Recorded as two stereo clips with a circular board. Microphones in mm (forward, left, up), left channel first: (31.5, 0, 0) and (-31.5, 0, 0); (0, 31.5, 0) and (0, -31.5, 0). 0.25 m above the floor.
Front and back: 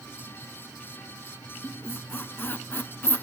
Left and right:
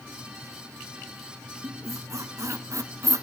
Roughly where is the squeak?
Ahead right.